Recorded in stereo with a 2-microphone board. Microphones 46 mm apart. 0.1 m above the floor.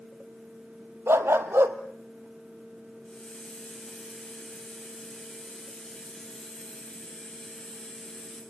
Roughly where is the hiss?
Centre.